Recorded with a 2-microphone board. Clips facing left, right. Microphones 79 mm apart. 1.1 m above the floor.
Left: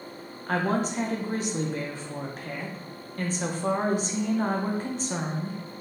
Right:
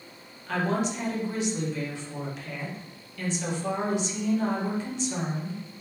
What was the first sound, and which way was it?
A woman speaking, 45° left (ahead or behind).